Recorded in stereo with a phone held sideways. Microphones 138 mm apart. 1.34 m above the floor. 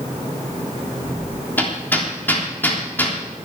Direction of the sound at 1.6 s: 15° left (ahead or behind).